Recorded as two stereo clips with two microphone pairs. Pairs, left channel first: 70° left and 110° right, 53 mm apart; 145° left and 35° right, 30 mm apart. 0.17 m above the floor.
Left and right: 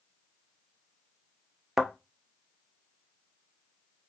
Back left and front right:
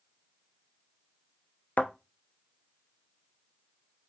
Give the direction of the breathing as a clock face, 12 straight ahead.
I don't hear breathing.